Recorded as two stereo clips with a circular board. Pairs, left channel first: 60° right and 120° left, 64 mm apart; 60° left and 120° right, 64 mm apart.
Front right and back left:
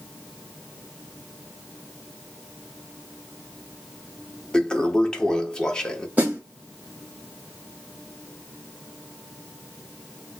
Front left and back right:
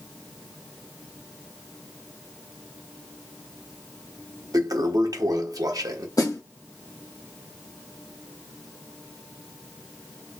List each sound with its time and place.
4.5 s a toilet flushing: 140° right, 0.7 m
6.2 s a snare drum: 55° left, 1.7 m